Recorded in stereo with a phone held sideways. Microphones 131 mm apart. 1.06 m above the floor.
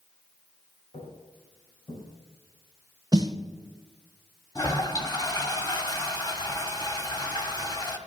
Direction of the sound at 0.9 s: 40° left (ahead or behind).